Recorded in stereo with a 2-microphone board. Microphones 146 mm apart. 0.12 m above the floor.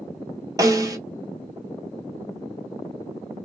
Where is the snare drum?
25° right (ahead or behind), 0.8 m.